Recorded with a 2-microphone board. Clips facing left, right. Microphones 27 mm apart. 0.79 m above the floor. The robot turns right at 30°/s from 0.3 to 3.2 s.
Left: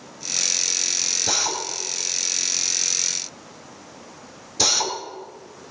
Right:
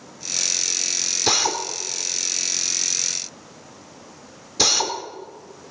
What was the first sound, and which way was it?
A drill, 65° right (ahead or behind).